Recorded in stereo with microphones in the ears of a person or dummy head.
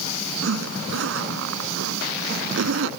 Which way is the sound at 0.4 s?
70° right (ahead or behind).